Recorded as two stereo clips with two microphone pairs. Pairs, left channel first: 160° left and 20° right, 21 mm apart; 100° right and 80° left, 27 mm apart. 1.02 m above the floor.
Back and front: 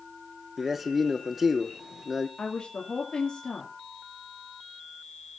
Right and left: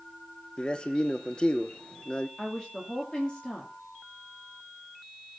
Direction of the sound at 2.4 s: 155° right.